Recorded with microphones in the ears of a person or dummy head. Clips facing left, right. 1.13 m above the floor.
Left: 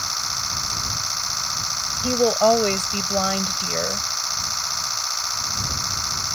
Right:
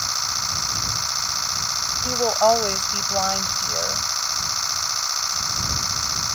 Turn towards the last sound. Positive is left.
turn(degrees=30)  # may be behind; listen again after turning